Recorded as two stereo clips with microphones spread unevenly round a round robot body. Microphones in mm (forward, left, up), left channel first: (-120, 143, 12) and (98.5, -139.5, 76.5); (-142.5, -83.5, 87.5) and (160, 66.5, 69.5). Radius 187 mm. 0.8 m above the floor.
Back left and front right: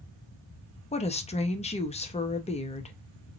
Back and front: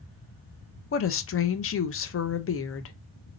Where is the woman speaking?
175° left, 0.6 m.